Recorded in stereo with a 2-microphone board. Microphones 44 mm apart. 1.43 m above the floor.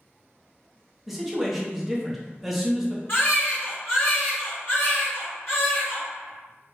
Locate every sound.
1.1 s a man speaking: 5° right (ahead or behind), 0.7 m
3.1 s a baby crying: 55° left (ahead or behind), 1.7 m